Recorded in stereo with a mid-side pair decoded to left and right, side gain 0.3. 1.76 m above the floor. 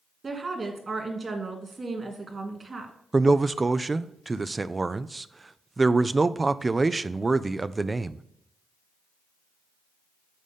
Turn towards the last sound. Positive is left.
turn(degrees=-35)